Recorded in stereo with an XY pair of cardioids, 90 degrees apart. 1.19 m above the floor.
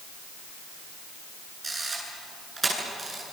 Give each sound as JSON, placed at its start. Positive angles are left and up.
{"t": 1.6, "sound": "a camera shutter", "azimuth_deg": -25, "distance_m": 9.0}